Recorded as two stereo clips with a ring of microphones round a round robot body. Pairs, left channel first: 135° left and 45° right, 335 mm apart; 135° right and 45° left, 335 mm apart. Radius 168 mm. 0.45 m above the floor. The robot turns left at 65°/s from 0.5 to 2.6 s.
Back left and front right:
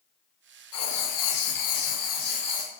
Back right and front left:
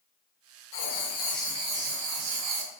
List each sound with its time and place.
0.7 s writing: straight behind, 0.8 m; by 2.7 s 55° left, 0.8 m